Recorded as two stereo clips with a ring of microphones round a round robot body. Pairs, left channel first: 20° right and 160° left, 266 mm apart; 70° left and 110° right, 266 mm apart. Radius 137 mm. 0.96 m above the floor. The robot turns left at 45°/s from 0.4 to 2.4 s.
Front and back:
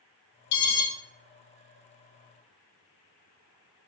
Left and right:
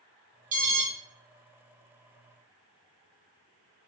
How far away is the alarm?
About 1.0 m.